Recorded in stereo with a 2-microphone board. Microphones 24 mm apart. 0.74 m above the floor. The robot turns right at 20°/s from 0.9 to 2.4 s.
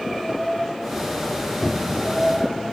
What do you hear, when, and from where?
1.6 s a cupboard door: 5° left (ahead or behind), 1.3 m; by 2.2 s 5° right (ahead or behind), 1.3 m